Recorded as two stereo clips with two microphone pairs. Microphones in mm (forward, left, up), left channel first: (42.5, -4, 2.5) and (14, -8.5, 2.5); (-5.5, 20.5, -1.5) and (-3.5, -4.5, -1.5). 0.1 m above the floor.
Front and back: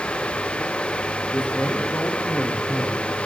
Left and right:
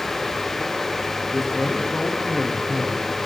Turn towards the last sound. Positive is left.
turn(degrees=40)